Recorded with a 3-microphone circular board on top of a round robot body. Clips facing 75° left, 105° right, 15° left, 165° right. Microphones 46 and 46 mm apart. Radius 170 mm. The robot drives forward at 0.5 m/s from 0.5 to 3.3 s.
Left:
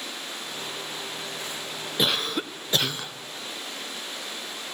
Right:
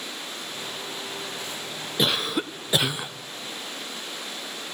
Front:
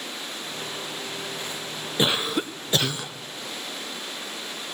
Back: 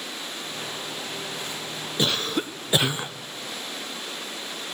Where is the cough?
15° right, 0.7 m; by 3.1 s 170° right, 0.7 m.